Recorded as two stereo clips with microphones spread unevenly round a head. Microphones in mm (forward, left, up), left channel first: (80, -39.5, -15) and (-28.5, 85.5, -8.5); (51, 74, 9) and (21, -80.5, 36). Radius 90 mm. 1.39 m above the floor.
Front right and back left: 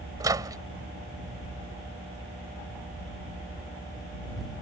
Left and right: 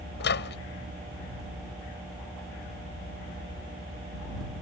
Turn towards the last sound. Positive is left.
turn(degrees=65)